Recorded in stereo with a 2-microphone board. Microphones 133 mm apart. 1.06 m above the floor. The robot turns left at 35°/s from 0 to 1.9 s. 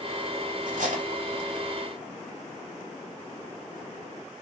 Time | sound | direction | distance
0.7 | cutlery clinking | 80° right | 1.6 m